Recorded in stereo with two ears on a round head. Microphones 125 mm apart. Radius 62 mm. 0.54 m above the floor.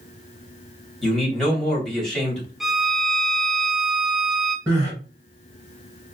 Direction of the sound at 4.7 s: 25° right (ahead or behind).